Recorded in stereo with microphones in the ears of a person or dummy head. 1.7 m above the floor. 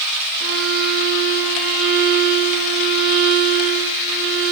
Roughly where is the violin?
Right.